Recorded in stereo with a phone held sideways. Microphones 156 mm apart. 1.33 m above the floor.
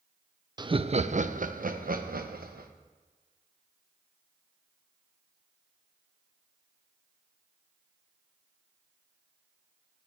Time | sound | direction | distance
0.6 | laughter | 25° right (ahead or behind) | 0.5 m